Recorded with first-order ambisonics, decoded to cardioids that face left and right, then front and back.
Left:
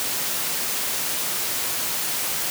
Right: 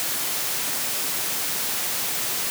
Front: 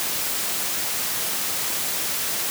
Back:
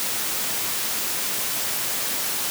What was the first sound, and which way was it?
Only background noise.